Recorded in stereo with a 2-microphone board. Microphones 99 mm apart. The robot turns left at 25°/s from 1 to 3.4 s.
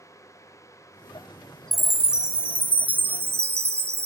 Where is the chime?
Straight ahead, 0.5 m; by 4.1 s 40° right, 0.5 m.